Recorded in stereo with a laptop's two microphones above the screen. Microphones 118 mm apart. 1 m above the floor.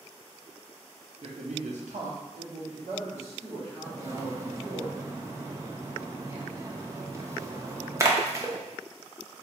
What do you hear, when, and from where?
1.2 s a man speaking: 55° right (ahead or behind), 0.7 m; by 4.9 s 50° right (ahead or behind), 2 m
3.9 s a splash: 25° right (ahead or behind), 0.5 m